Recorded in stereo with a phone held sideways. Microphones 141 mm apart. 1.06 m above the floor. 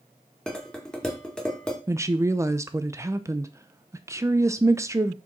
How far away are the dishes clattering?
About 1.9 m.